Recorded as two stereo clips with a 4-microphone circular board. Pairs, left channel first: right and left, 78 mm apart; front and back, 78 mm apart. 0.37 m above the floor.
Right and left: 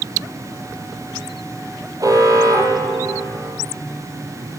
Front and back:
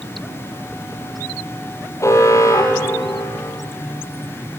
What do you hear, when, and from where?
2.0 s an alarm: 50° left, 9 m